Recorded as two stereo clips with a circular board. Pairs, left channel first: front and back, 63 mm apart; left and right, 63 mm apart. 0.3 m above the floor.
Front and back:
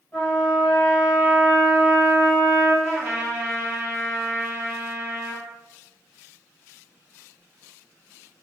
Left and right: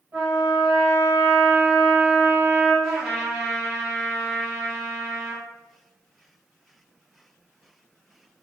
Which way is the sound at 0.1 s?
50° right.